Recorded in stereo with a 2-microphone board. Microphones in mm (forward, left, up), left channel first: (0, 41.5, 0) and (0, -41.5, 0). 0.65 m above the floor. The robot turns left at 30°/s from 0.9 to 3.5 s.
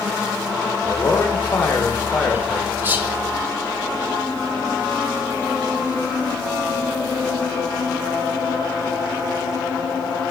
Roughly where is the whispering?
Right.